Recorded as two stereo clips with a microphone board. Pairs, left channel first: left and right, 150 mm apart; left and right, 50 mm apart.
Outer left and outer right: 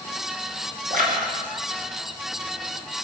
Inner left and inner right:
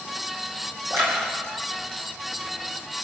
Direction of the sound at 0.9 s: 65° right (ahead or behind).